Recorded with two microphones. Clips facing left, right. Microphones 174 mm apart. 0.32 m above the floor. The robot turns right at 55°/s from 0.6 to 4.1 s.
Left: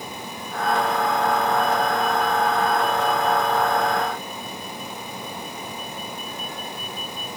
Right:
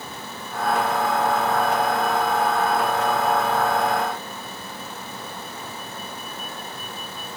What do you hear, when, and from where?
Only background noise.